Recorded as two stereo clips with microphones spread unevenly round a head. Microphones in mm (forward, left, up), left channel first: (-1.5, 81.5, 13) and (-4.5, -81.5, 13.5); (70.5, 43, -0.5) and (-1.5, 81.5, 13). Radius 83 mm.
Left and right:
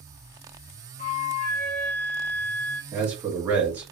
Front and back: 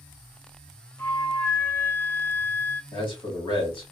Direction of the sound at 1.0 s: 45° left.